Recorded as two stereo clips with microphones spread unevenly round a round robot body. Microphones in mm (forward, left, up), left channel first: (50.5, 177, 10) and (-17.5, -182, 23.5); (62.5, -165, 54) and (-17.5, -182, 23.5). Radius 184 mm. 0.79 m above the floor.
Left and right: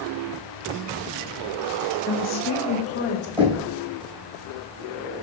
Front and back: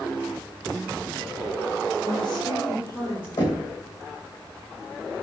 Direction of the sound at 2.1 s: 35° left.